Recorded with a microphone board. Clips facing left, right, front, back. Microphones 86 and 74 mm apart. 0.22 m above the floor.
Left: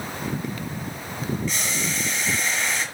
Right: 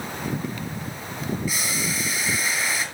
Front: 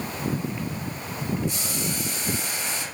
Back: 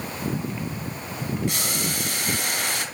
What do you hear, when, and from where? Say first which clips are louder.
1.5 s boiling: even, back 2 dB; 175° right, 3 m